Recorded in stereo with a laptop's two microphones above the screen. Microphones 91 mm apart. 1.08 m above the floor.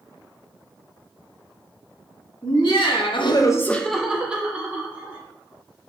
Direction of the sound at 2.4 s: 55° left (ahead or behind).